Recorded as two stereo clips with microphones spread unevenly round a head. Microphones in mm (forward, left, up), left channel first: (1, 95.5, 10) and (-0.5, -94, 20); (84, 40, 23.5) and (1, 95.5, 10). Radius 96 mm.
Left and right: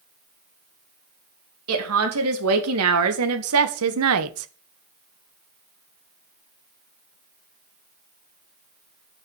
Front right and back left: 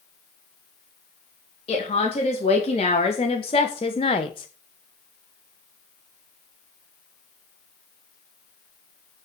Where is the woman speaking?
90° right, 3.5 m; by 4.5 s 95° right, 1.1 m.